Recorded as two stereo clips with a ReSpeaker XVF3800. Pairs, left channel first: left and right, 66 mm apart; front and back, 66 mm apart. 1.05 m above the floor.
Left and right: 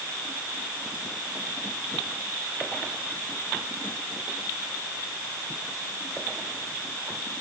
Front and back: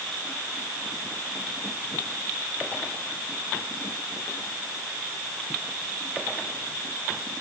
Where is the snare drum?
No snare drum in this recording.